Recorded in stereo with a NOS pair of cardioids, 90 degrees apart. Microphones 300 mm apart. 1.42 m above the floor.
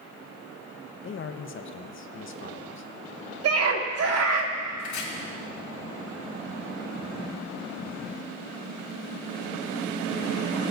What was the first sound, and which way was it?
A man speaking, 40° left.